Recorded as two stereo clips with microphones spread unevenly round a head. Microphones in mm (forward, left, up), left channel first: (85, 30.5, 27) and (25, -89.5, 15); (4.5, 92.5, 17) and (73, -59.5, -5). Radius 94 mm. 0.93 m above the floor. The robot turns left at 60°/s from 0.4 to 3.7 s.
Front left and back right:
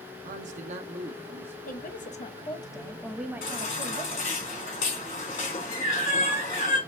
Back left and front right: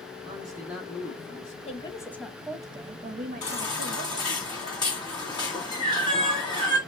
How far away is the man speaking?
About 0.5 m.